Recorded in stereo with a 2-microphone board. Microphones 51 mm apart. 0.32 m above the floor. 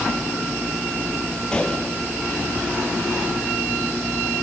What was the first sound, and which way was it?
A gunshot, 20° left (ahead or behind).